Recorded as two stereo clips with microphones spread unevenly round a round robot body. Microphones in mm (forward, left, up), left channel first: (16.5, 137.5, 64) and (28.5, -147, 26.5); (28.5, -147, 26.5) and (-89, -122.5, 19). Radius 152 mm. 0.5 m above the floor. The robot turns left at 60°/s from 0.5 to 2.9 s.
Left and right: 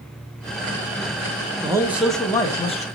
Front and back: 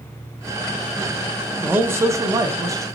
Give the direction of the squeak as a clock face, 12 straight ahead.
I don't hear a squeak.